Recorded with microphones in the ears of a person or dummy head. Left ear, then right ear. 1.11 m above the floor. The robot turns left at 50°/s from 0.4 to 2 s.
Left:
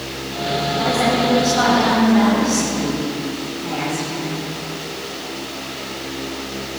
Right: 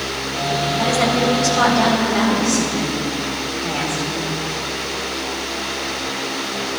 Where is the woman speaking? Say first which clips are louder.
Even; 60° right, 3.5 m; by 4.3 s 120° right, 3.5 m.